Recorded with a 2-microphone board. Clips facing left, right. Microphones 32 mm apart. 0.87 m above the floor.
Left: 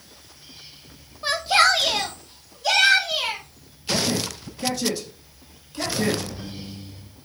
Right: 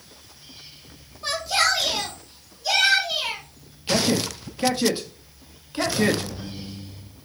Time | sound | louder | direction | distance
1.2 | a shout | left 4 dB | 15° left (ahead or behind) | 0.5 m
3.9 | a man speaking | right 2 dB | 35° right (ahead or behind) | 1.1 m